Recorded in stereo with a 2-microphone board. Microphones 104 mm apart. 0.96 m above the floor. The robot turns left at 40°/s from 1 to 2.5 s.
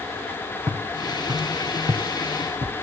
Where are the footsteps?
35° right (ahead or behind), 4 m; by 2.7 s 45° right (ahead or behind), 1.5 m.